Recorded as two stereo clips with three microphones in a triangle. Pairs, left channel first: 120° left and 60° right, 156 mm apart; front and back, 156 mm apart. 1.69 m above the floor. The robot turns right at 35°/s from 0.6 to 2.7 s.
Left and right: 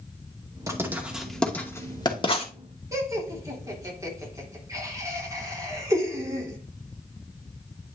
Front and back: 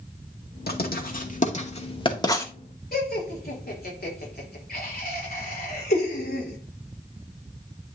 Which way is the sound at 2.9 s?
10° left.